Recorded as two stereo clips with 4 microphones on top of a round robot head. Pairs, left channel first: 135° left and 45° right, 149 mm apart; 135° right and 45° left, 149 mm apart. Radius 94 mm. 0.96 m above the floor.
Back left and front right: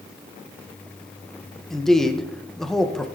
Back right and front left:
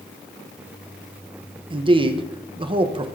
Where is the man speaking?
50° left, 0.9 m.